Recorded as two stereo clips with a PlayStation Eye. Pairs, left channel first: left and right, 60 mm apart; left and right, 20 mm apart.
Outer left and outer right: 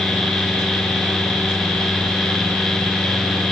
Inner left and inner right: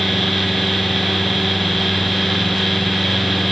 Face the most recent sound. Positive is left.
No sound to turn to.